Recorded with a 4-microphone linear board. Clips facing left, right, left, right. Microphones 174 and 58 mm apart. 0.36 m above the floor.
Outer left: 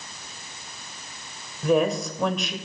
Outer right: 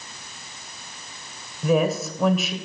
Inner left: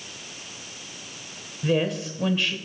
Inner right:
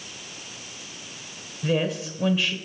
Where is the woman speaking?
5° right (ahead or behind), 1.2 m.